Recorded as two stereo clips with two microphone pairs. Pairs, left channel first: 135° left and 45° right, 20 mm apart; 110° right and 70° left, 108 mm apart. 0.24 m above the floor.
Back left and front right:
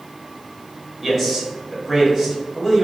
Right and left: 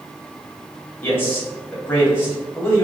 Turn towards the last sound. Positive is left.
turn(degrees=-130)